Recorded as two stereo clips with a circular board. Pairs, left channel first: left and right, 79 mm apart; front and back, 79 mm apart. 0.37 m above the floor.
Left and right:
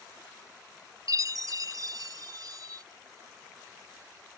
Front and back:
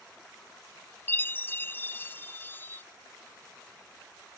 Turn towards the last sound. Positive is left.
turn(degrees=-60)